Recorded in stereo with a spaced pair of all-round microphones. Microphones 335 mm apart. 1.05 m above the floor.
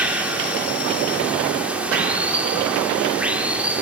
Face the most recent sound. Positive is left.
turn(degrees=-5)  # may be behind; listen again after turning